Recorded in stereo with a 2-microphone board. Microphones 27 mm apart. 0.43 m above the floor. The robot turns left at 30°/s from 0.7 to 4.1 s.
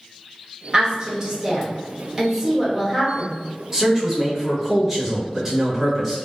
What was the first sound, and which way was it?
A woman speaking, 30° right (ahead or behind).